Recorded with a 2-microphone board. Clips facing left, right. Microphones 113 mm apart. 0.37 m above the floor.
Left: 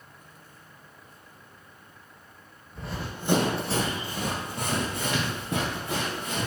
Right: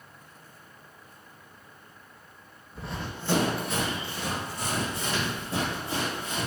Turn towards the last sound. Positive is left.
turn(degrees=75)  # may be behind; listen again after turning